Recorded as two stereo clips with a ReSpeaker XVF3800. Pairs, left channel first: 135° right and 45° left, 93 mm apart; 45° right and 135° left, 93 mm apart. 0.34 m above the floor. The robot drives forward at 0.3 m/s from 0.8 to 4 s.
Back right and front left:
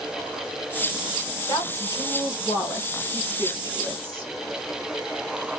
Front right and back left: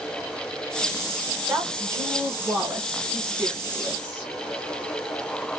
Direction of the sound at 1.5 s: 175° right.